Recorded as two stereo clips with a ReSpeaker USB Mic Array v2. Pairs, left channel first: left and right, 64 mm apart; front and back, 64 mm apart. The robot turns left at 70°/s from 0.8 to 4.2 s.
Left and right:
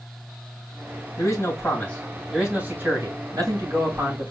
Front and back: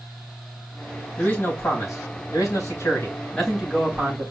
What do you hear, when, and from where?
1.2 s a man speaking: 75° left, 3.5 m; by 4.3 s 135° right, 3.5 m